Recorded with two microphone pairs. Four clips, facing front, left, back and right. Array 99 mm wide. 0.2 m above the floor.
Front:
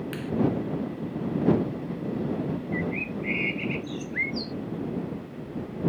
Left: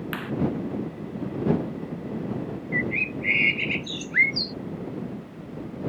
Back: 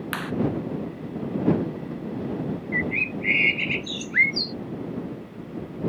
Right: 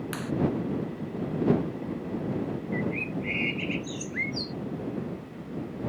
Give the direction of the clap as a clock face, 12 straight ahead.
6 o'clock.